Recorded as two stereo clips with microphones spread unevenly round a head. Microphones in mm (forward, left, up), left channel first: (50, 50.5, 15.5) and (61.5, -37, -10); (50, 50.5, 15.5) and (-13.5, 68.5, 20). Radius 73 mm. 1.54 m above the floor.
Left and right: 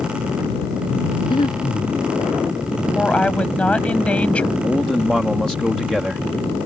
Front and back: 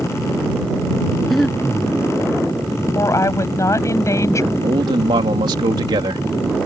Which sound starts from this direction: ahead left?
A woman speaking, at 3.0 s.